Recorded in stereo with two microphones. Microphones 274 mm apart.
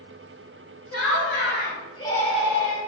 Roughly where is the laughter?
Left.